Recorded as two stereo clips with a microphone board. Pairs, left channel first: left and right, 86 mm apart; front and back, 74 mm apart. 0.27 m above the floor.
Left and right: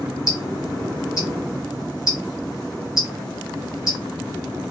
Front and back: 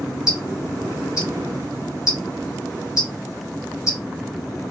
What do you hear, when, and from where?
0.3 s ticking: 40° left, 1.9 m